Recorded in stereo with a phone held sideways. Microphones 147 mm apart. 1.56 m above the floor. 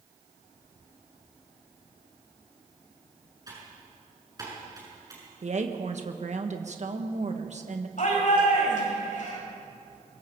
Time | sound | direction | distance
3.5 | typing on a keyboard | 25° right (ahead or behind) | 7.5 m
5.4 | a woman speaking | 55° right (ahead or behind) | 1.6 m
8.0 | a shout | 65° left (ahead or behind) | 8 m